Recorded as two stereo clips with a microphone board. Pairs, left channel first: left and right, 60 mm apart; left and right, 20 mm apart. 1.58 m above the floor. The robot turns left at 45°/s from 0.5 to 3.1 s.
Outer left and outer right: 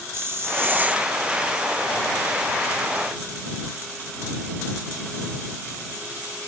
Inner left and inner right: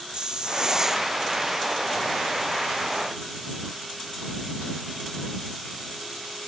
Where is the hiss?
45° right (ahead or behind); by 1.1 s 20° right (ahead or behind).